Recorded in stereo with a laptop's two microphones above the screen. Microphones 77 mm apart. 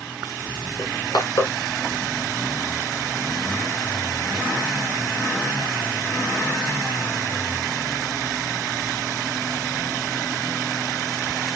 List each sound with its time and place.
0.8 s crushing: 60° left (ahead or behind), 2.0 m